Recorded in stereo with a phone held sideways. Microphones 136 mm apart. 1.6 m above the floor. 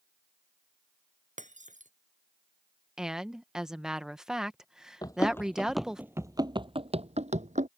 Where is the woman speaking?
5° right (ahead or behind).